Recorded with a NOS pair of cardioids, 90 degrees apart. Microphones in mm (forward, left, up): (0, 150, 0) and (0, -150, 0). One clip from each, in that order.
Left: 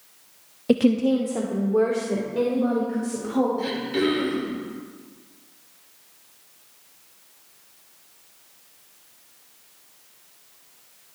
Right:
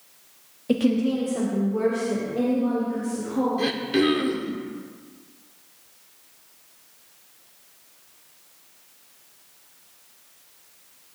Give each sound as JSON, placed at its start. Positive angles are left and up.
{"t": 0.7, "sound": "a woman speaking", "azimuth_deg": 30, "distance_m": 0.7}
{"t": 3.6, "sound": "throat clearing", "azimuth_deg": -40, "distance_m": 1.6}